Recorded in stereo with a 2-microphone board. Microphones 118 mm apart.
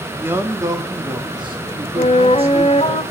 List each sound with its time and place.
0.2 s a man speaking: 15° right (ahead or behind), 2.0 m; by 3.0 s 55° right (ahead or behind), 3 m
2.0 s a flute: 50° left (ahead or behind), 1.7 m